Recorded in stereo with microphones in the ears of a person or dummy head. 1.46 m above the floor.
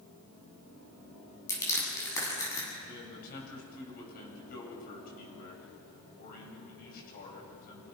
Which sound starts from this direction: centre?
Crushing, at 1.5 s.